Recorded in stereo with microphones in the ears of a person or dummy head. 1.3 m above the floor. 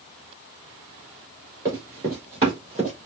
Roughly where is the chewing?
No chewing in this recording.